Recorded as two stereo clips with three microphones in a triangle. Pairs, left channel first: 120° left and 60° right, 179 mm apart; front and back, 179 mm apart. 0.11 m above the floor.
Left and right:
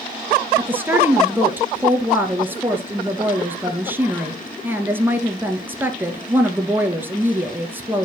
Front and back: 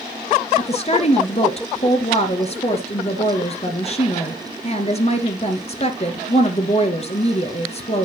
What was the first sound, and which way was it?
A woman speaking, 15° left.